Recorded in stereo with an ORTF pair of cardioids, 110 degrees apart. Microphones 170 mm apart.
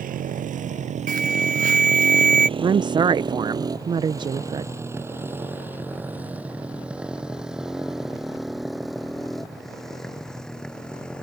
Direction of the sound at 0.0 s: 55° right.